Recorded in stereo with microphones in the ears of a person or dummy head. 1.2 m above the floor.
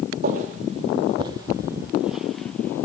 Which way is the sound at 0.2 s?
45° right (ahead or behind).